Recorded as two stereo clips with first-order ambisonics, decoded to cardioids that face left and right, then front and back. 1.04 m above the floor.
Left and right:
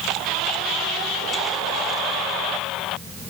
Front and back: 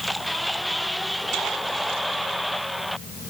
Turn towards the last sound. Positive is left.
No sound to turn to.